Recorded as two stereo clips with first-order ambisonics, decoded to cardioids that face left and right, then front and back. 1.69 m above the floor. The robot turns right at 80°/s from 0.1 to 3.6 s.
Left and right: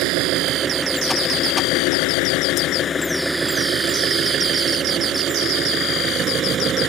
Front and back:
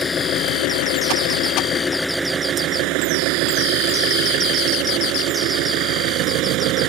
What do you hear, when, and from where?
0.0 s an engine running: 70° right; by 6.9 s 150° right